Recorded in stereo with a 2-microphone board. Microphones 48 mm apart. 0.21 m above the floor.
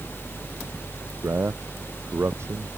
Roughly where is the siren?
I don't hear a siren.